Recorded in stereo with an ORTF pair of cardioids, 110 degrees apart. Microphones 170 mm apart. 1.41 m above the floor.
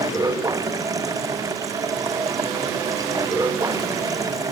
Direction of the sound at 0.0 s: 20° right.